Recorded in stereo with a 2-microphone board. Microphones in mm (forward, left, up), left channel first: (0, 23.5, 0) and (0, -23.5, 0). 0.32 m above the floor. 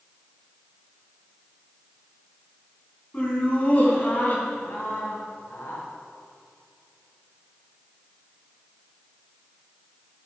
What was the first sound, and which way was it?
Laughter, 25° left (ahead or behind).